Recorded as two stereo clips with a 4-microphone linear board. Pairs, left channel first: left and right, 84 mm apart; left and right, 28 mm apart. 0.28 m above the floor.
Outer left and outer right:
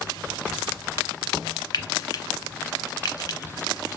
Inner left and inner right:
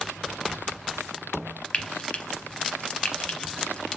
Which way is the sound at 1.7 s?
50° left (ahead or behind).